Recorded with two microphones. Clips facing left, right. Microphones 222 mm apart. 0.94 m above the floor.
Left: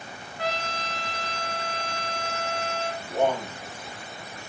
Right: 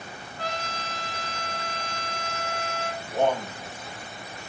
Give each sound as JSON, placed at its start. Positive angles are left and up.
{"t": 0.4, "sound": "a trumpet", "side_deg": 5, "distance_m": 1.6}
{"t": 3.0, "sound": "a man speaking", "side_deg": 10, "distance_m": 4.5}